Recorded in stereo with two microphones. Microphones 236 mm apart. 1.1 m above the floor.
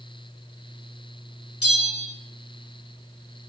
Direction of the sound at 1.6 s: 80° left.